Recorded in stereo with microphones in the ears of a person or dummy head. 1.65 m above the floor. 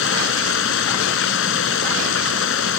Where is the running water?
80° left.